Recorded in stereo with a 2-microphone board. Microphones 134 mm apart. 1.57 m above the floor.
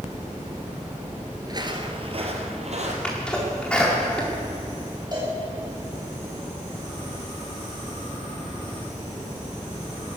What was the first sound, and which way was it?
Footsteps, 30° right (ahead or behind).